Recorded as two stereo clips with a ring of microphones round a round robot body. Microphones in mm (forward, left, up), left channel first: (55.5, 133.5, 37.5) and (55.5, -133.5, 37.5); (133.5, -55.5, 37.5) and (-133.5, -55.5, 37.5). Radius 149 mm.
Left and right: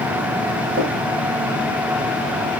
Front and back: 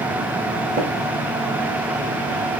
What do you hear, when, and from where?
0.8 s tapping: 140° right, 1.6 m